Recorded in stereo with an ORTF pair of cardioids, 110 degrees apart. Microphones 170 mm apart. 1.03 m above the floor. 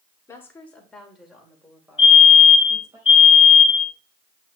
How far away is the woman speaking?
About 2.5 m.